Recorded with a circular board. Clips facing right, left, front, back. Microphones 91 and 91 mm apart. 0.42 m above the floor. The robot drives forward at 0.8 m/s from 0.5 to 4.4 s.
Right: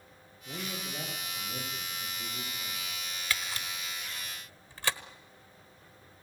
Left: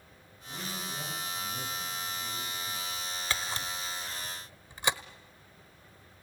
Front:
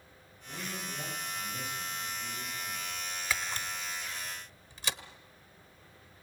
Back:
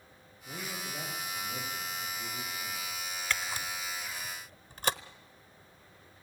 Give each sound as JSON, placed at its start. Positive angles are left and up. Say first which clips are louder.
{"t": 0.5, "sound": "a man speaking", "louder": "right 1 dB, even", "azimuth_deg": -120, "distance_m": 9.0}
{"t": 3.3, "sound": "a camera shutter", "louder": "left 1 dB, even", "azimuth_deg": 80, "distance_m": 0.7}